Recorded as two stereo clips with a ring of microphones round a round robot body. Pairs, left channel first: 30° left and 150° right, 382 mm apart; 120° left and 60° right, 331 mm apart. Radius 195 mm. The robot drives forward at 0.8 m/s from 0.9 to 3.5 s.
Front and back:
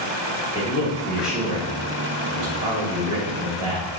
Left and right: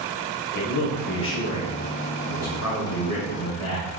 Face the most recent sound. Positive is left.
turn(degrees=165)